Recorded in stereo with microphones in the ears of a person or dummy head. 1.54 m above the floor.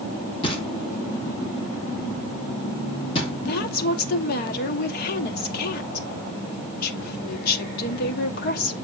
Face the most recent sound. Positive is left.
turn(degrees=55)  # may be behind; listen again after turning